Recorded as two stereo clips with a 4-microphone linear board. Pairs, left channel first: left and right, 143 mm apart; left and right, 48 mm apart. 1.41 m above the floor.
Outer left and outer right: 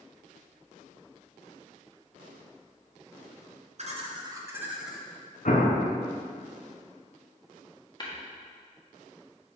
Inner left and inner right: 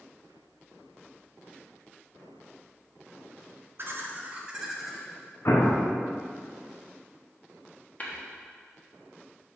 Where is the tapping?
30° left (ahead or behind), 1.4 m.